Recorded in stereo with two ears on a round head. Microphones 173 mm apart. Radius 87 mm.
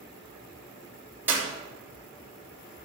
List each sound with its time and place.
1.3 s a clap: 10° right (ahead or behind), 3.5 m